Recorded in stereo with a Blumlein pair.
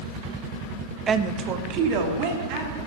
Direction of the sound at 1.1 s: 20° right.